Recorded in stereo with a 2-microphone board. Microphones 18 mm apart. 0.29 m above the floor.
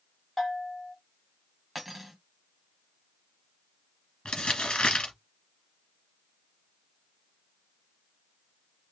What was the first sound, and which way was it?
A bell, 20° left (ahead or behind).